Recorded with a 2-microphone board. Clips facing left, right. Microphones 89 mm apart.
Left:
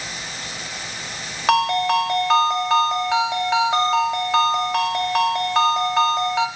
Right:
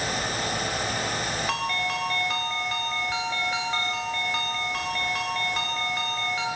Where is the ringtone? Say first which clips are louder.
Left 15 dB; 70° left (ahead or behind), 0.7 m.